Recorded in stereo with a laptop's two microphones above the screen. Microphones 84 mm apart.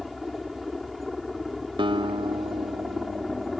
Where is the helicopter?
Centre (ahead or behind).